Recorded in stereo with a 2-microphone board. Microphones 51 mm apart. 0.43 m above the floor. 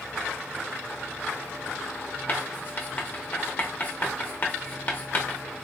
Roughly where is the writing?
Left.